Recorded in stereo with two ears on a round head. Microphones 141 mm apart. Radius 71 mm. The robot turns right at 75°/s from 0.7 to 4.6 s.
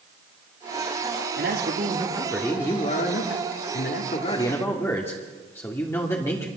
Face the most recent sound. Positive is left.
turn(degrees=165)